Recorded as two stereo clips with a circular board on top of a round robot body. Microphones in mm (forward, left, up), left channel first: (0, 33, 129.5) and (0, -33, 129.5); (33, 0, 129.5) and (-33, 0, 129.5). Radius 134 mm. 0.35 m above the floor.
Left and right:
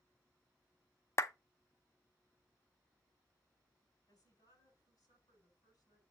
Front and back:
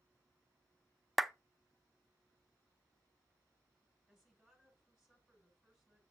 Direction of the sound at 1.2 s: 95° left.